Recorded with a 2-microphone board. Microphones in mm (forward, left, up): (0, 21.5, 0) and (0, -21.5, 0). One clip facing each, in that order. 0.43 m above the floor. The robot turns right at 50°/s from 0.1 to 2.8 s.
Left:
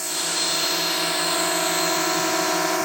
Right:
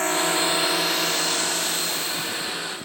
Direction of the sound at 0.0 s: 35° right (ahead or behind).